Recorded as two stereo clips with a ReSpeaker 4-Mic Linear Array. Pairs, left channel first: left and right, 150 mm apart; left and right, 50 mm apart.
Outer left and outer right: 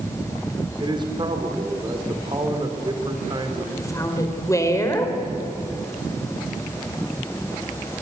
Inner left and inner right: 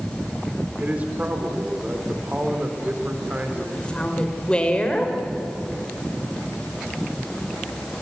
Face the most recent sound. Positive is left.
turn(degrees=20)  # may be behind; listen again after turning